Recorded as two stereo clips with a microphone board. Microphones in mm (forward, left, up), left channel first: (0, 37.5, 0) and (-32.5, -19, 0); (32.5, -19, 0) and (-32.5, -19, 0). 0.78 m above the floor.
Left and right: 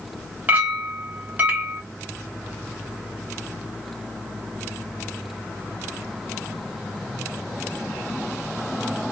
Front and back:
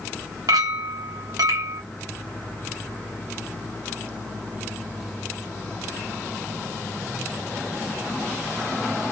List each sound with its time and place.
0.5 s a clink: straight behind, 0.9 m